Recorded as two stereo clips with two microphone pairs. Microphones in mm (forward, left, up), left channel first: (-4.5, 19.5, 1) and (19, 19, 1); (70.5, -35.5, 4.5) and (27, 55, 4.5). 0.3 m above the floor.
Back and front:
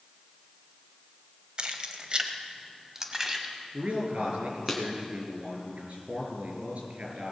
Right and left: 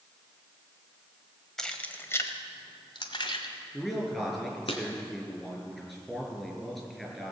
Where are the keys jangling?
20° left, 1.0 m; by 4.7 s 80° right, 2 m.